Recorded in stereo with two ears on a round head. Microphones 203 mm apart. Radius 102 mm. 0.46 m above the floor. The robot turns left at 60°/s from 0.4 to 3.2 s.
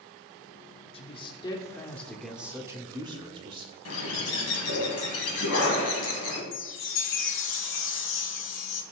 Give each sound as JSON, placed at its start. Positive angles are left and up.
{"t": 0.9, "sound": "a man speaking", "side_deg": 25, "distance_m": 1.0}
{"t": 3.9, "sound": "a bird", "side_deg": 70, "distance_m": 2.0}
{"t": 6.5, "sound": "a chime", "side_deg": 60, "distance_m": 1.0}